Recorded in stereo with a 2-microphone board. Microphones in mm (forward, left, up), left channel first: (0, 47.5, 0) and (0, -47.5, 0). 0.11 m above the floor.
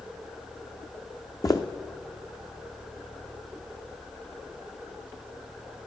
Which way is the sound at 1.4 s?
35° left (ahead or behind).